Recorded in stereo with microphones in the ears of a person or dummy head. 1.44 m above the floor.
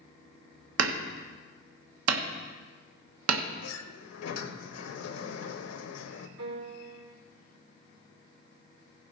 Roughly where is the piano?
Right.